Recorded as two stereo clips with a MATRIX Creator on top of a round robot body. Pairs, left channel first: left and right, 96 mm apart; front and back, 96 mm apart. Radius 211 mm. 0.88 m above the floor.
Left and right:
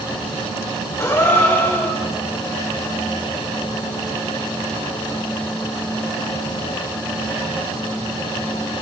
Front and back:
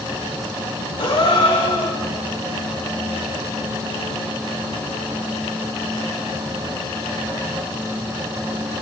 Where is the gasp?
30° left, 3.5 m.